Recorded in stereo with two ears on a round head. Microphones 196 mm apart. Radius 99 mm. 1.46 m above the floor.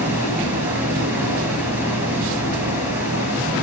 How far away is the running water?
About 4 m.